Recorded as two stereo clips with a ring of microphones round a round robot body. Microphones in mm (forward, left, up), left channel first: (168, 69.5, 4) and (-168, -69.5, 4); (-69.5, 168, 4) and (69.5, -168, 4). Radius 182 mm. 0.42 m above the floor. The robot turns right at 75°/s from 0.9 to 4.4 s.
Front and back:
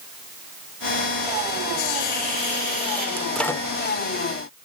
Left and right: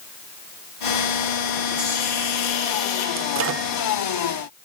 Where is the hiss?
15° left, 7 m; by 3.1 s 115° left, 7 m.